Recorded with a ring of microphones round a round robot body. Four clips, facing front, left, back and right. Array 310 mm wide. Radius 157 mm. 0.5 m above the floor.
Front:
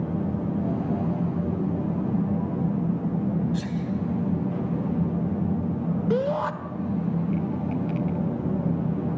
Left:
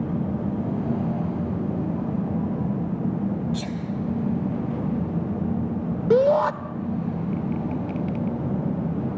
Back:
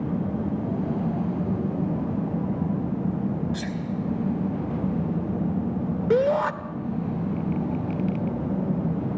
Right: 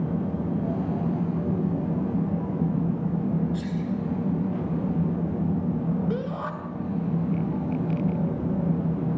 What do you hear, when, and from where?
3.5 s a sneeze: 120° left, 3.5 m
6.1 s a shout: 110° left, 1.4 m